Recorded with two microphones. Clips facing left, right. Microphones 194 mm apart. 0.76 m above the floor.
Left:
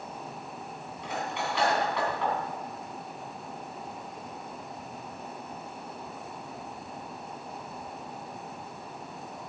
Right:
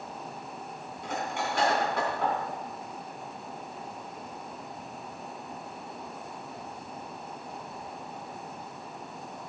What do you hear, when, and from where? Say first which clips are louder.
1.0 s cutlery clinking: right 1 dB; 45° right (ahead or behind), 3 m